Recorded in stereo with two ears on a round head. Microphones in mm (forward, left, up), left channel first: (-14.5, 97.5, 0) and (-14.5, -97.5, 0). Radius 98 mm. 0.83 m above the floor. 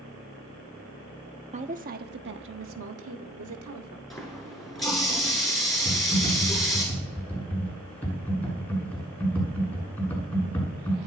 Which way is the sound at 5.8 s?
10° left (ahead or behind).